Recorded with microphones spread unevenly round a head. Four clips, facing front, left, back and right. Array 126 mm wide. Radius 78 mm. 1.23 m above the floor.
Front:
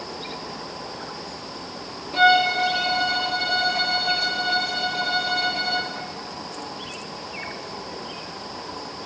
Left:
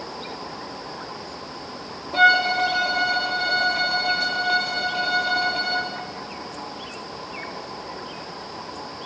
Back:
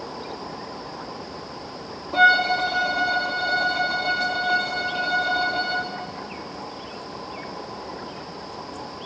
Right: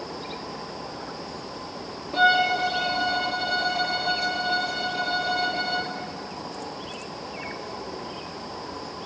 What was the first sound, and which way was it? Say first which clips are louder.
A violin: left 2 dB, even; 160° right.